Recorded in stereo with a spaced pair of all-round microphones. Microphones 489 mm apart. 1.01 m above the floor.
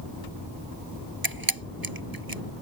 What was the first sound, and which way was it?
A camera shutter, 45° right (ahead or behind).